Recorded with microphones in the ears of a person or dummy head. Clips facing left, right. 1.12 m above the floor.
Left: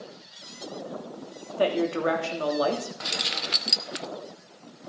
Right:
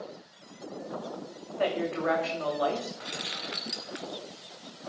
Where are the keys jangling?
55° left (ahead or behind), 0.6 m.